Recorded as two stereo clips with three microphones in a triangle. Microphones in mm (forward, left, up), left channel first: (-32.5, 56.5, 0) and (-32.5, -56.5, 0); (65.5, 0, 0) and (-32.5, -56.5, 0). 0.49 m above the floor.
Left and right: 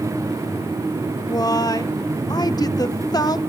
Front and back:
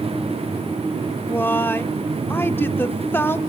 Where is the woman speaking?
85° left, 0.8 m.